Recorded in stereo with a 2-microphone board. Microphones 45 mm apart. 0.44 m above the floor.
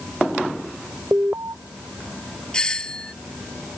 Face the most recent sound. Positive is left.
turn(degrees=15)  # may be behind; listen again after turning